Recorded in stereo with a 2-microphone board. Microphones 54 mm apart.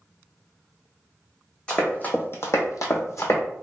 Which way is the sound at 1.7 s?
20° left (ahead or behind).